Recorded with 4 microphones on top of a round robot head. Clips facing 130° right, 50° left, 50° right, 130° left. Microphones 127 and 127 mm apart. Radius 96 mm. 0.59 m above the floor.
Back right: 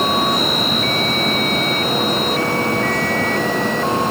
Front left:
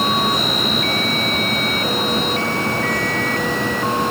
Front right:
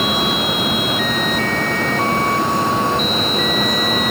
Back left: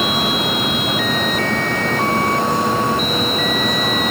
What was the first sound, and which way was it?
Only background noise.